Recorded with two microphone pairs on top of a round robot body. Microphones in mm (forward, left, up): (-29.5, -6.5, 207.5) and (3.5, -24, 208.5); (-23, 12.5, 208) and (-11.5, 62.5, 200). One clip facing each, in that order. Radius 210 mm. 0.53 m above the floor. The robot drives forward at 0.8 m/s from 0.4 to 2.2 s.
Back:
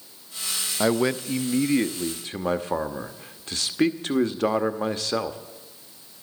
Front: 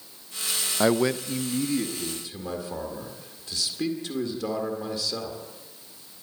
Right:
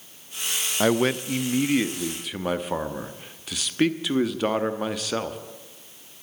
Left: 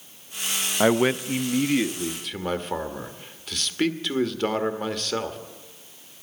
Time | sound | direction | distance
0.8 | a man speaking | 55° left | 0.8 m